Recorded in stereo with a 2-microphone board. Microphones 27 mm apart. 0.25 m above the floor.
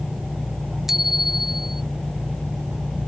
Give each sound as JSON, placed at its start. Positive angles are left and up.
{"t": 0.9, "sound": "a bicycle bell", "side_deg": -10}